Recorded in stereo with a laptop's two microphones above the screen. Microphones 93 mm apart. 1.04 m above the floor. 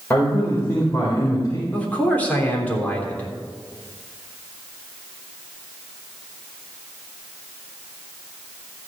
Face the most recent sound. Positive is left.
turn(degrees=15)  # may be behind; listen again after turning